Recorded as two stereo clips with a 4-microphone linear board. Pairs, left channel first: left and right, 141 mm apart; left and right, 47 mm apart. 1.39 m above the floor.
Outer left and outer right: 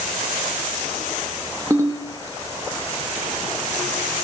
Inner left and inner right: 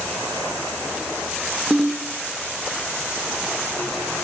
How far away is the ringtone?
About 0.8 m.